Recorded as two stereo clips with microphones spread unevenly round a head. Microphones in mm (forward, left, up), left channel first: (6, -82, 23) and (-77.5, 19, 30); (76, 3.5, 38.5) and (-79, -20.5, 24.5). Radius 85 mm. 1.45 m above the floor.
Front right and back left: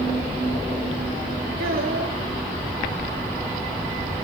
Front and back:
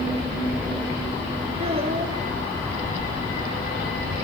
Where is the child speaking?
130° left, 2.5 m.